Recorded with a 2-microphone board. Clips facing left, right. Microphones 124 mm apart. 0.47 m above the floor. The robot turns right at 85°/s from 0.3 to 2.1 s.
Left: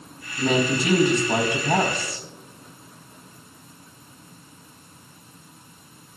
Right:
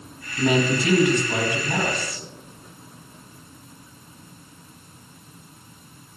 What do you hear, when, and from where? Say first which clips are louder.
0.4 s a woman speaking: right 1 dB; 20° right, 3.5 m; by 2.2 s 125° left, 3.5 m